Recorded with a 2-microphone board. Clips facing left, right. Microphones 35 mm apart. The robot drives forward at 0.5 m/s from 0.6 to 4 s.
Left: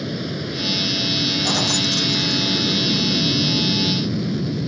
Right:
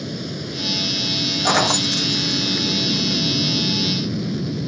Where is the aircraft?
15° left (ahead or behind); by 4.7 s 5° left (ahead or behind).